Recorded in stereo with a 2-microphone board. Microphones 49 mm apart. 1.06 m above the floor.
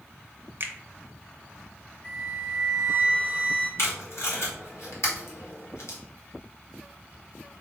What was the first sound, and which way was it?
A finger snap, 45° right (ahead or behind).